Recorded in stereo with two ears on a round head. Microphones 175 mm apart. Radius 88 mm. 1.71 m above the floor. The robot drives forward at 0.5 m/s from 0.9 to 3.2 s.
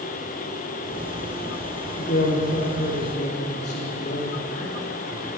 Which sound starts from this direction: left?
A man speaking, at 2.0 s.